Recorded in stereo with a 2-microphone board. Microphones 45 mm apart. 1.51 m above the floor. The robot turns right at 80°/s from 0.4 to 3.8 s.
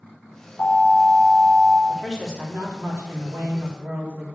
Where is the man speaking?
165° left, 3.5 m; by 4.3 s 45° right, 3.5 m.